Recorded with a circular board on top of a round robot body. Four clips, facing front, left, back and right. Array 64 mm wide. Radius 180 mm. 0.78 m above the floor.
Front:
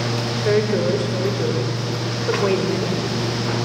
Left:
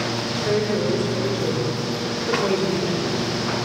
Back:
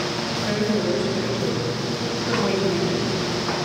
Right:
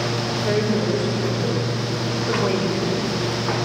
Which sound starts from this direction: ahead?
A woman speaking, at 0.5 s.